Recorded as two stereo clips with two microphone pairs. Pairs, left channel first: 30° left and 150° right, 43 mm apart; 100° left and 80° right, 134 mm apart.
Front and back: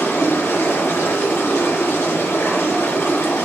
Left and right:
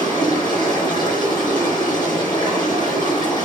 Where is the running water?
40° left, 4.5 m.